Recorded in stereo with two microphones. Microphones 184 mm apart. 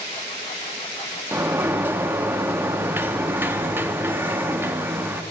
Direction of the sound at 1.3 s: 10° right (ahead or behind).